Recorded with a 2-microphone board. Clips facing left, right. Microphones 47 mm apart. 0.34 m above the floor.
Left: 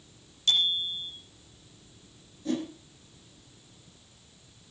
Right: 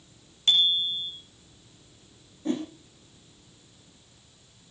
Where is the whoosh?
30° right (ahead or behind), 5.5 m.